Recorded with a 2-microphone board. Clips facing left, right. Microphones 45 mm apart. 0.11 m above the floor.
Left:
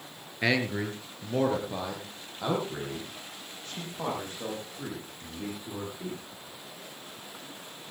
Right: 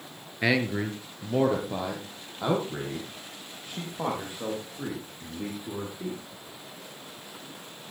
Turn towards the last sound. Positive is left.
turn(degrees=-10)  # may be behind; listen again after turning